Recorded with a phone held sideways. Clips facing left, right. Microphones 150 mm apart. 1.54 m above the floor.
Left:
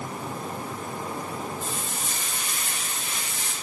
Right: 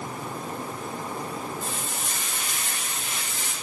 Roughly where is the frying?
Centre.